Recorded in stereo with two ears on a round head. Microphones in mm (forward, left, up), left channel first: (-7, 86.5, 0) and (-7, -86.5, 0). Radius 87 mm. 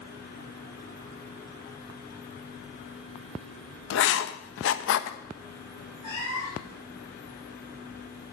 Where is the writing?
70° left (ahead or behind), 0.8 m.